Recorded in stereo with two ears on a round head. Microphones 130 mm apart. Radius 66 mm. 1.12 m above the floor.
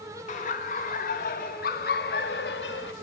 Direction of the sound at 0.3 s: 50° left (ahead or behind).